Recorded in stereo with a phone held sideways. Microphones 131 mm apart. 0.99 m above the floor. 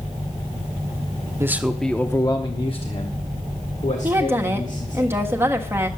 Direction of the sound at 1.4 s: 20° right (ahead or behind).